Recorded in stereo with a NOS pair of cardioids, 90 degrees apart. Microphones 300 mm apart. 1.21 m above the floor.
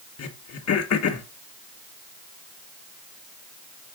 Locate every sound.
0.2 s throat clearing: 55° left, 1.7 m